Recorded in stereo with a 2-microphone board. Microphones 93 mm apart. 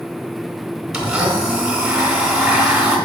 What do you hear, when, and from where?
0.9 s a blender: 5° right (ahead or behind), 3.5 m